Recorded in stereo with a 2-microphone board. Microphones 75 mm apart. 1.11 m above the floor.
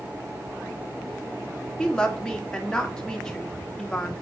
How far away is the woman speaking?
About 1.8 m.